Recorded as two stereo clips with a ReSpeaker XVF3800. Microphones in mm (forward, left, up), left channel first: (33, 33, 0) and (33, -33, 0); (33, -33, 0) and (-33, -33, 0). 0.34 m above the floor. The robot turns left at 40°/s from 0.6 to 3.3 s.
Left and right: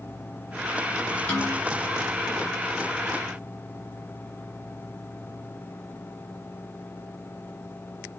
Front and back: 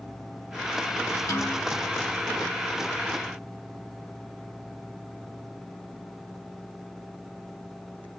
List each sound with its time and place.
1.3 s a snare drum: 30° left, 2.5 m; by 1.6 s 15° left, 2.5 m